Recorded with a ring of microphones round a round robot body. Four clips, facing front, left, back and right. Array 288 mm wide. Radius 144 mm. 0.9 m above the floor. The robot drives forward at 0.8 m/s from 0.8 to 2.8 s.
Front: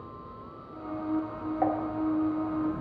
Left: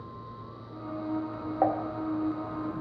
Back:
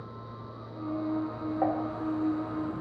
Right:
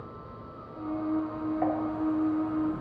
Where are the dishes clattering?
90° left, 1.0 m; by 1.8 s 95° left, 1.0 m.